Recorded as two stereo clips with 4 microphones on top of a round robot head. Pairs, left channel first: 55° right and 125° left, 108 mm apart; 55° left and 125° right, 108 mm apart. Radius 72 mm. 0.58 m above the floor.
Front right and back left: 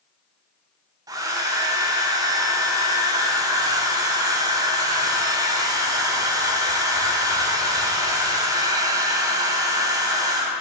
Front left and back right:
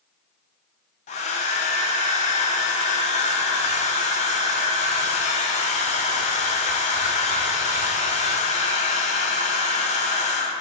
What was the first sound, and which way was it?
A hair dryer, 70° left.